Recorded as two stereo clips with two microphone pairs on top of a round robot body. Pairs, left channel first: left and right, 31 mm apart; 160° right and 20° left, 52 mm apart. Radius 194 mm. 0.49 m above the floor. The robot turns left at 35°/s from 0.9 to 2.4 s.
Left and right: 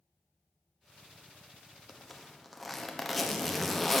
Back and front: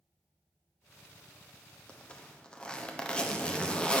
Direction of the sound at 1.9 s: 175° right.